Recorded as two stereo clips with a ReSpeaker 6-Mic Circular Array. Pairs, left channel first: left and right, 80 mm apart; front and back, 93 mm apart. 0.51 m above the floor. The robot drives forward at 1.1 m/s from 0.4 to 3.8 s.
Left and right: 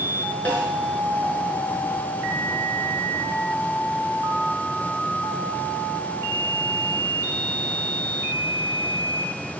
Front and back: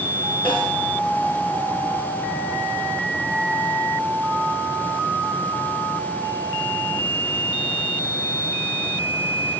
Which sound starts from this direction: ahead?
A snare drum, at 0.5 s.